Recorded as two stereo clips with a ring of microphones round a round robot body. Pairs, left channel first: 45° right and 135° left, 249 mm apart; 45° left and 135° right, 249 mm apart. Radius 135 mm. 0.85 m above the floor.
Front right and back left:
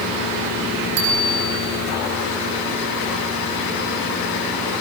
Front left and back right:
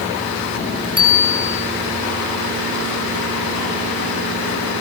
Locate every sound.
1.0 s a bicycle bell: 115° left, 6 m